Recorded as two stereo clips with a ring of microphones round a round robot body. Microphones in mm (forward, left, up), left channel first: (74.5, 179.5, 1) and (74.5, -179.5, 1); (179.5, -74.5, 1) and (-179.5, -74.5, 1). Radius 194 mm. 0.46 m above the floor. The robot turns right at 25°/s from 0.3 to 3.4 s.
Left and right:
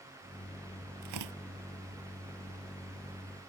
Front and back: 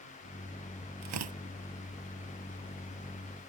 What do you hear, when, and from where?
1.0 s tearing paper: 140° right; by 1.4 s 130° right